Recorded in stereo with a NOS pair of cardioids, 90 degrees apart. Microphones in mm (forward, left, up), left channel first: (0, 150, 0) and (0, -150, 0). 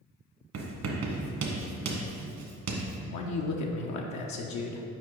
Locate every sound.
0.5 s writing: 60° right, 1.3 m
3.1 s a man speaking: 70° left, 0.7 m